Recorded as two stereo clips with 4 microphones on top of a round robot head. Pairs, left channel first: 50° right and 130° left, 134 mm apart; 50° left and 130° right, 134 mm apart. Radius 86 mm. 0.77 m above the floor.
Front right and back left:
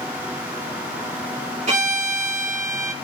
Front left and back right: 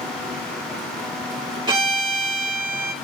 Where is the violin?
170° left, 3 m.